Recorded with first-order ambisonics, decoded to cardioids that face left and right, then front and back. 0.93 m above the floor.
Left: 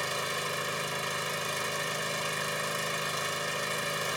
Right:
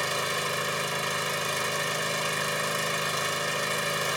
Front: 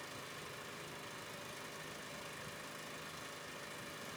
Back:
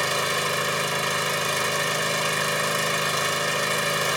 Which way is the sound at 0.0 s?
165° right.